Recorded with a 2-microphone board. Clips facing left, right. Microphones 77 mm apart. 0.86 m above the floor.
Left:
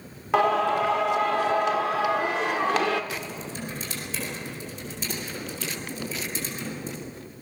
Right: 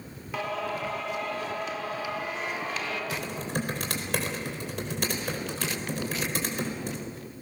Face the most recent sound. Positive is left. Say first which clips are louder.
# right 2 dB
turn(degrees=-60)  # may be behind; listen again after turning